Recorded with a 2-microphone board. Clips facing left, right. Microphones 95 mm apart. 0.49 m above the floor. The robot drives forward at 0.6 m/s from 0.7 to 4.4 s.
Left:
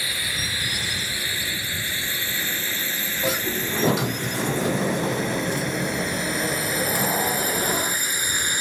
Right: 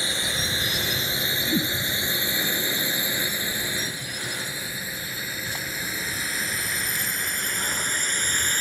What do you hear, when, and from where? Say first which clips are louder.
0.0 s a drone: right 1 dB; 25° right (ahead or behind); by 8.6 s 10° left (ahead or behind)
1.5 s a whoosh: right 7 dB; 85° right
3.2 s a sliding door: left 6 dB; 80° left